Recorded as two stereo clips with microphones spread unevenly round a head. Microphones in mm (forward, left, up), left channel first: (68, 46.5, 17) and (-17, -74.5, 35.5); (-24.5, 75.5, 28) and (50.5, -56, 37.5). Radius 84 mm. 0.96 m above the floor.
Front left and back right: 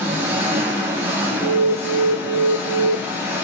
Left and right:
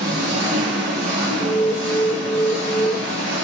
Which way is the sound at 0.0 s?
50° right.